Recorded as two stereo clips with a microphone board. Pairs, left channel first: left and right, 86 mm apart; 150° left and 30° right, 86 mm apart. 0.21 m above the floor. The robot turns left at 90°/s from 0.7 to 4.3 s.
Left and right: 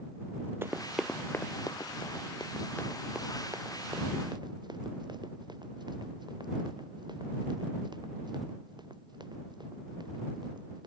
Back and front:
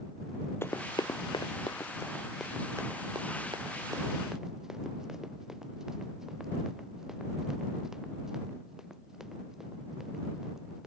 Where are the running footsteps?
150° right; by 10.9 s 115° right.